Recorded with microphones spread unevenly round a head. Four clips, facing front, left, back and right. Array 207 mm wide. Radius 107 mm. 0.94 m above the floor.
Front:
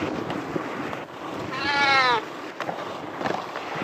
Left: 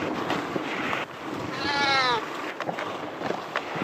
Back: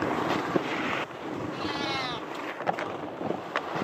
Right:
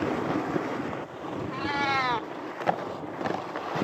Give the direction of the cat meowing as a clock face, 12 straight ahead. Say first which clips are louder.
Left 3 dB, front 13 dB; 11 o'clock.